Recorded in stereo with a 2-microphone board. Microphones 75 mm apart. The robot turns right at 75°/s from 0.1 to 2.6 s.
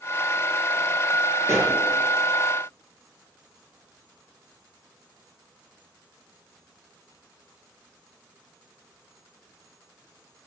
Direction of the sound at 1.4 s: 40° right (ahead or behind).